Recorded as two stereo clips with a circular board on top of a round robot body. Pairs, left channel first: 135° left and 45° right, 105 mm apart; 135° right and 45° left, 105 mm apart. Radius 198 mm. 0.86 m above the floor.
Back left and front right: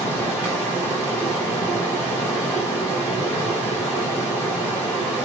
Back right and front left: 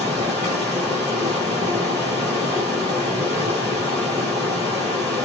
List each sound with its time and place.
0.0 s running water: 65° left, 0.8 m